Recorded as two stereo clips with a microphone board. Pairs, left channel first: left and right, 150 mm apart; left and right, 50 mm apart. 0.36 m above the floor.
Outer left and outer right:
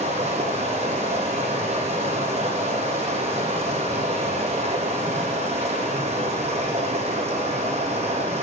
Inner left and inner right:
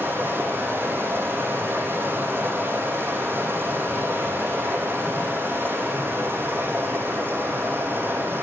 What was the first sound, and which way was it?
Running water, 50° right (ahead or behind).